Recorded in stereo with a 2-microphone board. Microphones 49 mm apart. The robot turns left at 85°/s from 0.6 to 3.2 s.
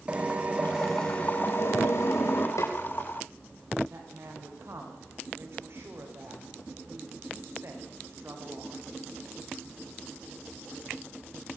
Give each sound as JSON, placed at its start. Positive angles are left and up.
{"t": 0.1, "sound": "a drill", "azimuth_deg": -155, "distance_m": 4.0}
{"t": 2.6, "sound": "a snare drum", "side_deg": 85, "distance_m": 6.5}
{"t": 3.9, "sound": "a woman speaking", "side_deg": -60, "distance_m": 8.0}